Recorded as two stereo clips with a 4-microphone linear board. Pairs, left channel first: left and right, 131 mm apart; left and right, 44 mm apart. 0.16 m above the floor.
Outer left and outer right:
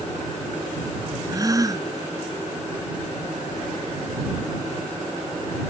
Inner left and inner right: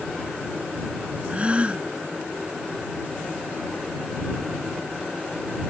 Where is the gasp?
30° right (ahead or behind).